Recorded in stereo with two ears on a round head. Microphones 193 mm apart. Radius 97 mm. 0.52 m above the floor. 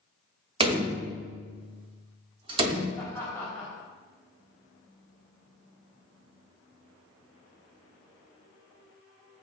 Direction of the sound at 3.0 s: 10° left (ahead or behind).